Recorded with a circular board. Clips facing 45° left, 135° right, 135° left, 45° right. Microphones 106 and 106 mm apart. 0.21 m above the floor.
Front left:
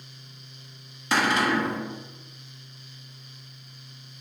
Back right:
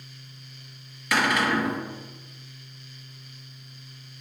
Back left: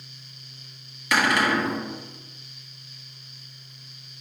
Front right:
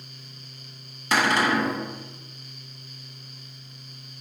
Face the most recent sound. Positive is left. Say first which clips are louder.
# even, even
turn(degrees=0)